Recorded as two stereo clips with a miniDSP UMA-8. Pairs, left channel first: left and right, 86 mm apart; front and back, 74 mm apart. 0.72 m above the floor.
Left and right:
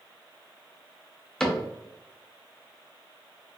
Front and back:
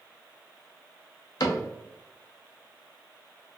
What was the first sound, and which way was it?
A cupboard door, 10° left.